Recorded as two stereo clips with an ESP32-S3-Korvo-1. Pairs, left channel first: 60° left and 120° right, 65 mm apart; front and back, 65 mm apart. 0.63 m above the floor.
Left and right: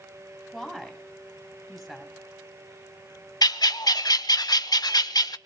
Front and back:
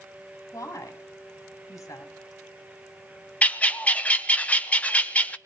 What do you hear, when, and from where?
0.5 s a woman speaking: 35° right, 4.5 m
3.4 s a bird: 70° left, 0.7 m